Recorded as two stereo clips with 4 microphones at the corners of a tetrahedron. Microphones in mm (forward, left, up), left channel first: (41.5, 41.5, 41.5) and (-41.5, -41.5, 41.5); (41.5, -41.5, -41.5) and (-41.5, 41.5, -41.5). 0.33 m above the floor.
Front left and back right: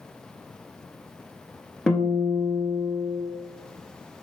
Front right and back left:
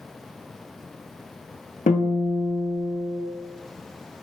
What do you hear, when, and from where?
1.9 s a guitar: 40° right, 0.8 m